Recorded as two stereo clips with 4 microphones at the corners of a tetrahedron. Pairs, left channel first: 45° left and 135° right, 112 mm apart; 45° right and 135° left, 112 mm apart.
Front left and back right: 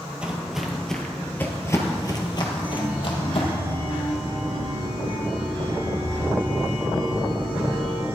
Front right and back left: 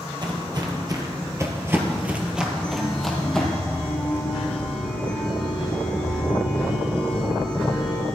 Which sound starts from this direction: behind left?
Footsteps, at 0.2 s.